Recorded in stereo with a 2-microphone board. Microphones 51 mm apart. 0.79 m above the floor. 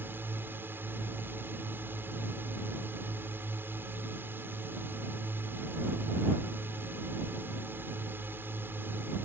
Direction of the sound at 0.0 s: 45° right (ahead or behind).